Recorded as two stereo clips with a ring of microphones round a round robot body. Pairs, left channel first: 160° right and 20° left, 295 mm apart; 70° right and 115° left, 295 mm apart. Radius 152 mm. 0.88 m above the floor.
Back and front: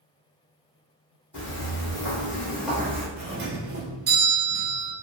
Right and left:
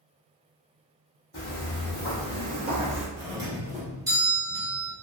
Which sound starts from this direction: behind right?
Footsteps, at 1.3 s.